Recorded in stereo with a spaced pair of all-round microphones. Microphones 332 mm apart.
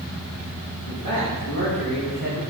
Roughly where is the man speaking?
Left.